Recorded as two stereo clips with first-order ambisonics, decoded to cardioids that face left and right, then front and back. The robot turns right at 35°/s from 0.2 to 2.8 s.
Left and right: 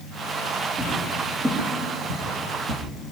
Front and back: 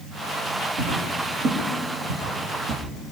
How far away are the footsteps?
About 5 m.